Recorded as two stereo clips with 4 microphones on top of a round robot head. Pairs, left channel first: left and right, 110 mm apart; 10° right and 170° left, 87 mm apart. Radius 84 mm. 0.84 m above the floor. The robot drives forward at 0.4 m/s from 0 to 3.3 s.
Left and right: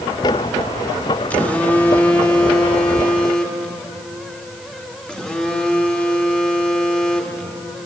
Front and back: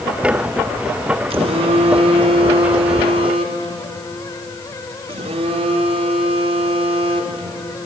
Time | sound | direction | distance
1.3 | a phone buzzing | 170° left | 0.9 m